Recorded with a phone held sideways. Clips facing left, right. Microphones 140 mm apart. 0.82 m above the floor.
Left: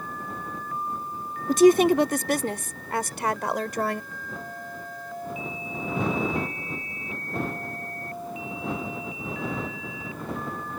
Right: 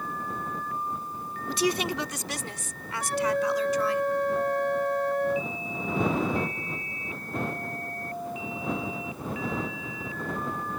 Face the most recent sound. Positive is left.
turn(degrees=-85)